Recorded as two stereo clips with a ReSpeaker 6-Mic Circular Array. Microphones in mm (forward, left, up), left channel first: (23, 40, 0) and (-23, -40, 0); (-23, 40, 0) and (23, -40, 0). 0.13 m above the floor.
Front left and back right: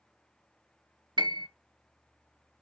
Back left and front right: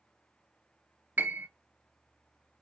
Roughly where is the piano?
Behind right.